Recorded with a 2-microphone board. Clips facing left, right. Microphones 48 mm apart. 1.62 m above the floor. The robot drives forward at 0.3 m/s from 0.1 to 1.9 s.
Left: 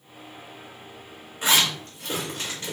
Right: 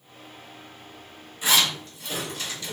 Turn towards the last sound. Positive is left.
turn(degrees=45)  # may be behind; listen again after turning